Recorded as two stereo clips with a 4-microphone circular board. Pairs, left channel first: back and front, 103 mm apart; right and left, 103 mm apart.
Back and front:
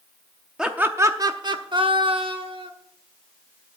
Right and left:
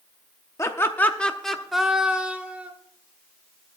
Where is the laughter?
75° right, 0.6 m; by 2.7 s 15° left, 1.4 m.